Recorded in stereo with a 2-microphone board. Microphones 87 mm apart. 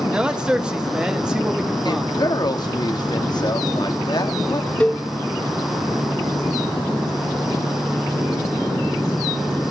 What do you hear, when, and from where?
0.1 s a man speaking: 10° right (ahead or behind), 1.0 m; by 2.2 s 5° right (ahead or behind), 1.7 m
1.9 s a woman speaking: 55° left (ahead or behind), 1.4 m
4.8 s a cowbell: 15° left (ahead or behind), 0.6 m